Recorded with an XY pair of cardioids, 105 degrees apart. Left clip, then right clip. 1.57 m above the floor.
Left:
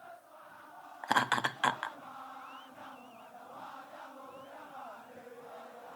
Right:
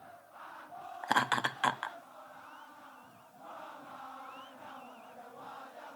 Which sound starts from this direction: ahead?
Laughter, at 1.0 s.